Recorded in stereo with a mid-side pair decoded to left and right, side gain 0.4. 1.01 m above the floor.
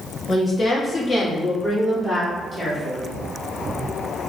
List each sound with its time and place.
0.3 s a woman speaking: 40° left, 1.6 m; by 3.0 s 20° left, 3 m